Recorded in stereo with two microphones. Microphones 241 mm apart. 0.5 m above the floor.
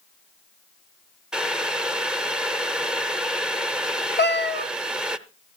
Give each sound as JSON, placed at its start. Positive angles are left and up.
{"t": 1.3, "sound": "boiling", "side_deg": -5, "distance_m": 0.6}
{"t": 4.2, "sound": "a cat meowing", "side_deg": 45, "distance_m": 0.6}